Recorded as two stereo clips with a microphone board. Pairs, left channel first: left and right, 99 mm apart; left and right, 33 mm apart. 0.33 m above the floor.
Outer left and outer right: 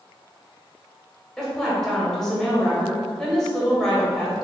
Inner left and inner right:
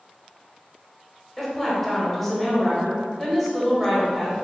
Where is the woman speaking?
5° left (ahead or behind), 1.0 m.